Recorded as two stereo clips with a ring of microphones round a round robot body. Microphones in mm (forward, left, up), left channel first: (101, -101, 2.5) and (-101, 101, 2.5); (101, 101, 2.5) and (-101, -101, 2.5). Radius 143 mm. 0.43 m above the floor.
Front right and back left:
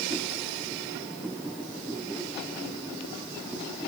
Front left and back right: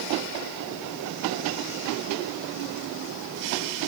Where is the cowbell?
I don't hear a cowbell.